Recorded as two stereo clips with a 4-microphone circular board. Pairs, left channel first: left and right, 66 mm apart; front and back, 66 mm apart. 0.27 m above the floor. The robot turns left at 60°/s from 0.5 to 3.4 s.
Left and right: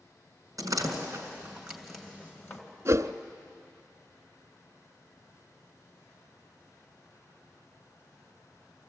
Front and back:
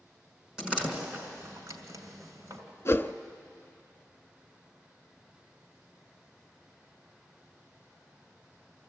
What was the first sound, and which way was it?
A door slam, 100° right.